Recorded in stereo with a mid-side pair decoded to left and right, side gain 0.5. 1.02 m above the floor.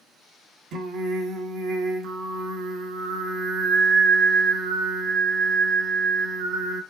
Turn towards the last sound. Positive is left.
turn(degrees=-65)